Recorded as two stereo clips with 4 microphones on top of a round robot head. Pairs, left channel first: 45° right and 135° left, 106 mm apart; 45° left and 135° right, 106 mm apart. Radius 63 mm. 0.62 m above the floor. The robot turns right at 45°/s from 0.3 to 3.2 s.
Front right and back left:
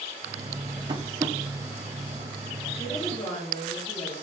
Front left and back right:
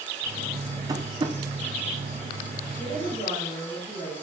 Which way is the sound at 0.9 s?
175° left.